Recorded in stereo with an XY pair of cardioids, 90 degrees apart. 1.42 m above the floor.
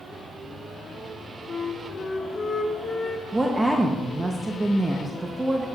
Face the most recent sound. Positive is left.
turn(degrees=-25)